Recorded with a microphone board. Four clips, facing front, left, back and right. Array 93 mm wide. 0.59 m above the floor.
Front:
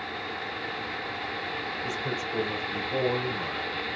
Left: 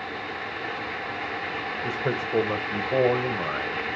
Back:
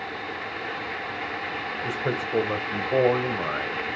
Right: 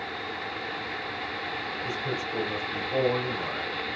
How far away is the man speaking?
About 2.5 m.